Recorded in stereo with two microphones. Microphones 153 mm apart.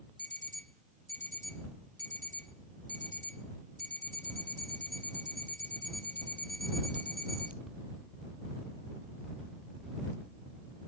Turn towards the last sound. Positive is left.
turn(degrees=-55)  # may be behind; listen again after turning